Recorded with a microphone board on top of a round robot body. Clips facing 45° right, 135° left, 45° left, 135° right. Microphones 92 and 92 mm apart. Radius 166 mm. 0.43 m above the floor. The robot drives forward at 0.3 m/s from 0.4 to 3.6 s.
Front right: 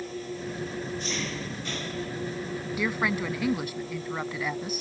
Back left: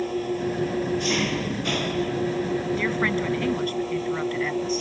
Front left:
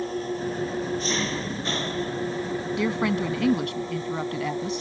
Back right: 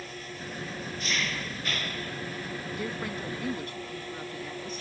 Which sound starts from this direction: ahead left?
A woman speaking, at 2.8 s.